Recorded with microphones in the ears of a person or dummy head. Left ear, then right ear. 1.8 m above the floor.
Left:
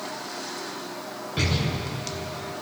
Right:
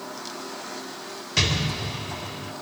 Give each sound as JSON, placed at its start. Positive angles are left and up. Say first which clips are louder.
{"t": 1.4, "sound": "an explosion", "louder": "right 4 dB", "side_deg": -70, "distance_m": 8.0}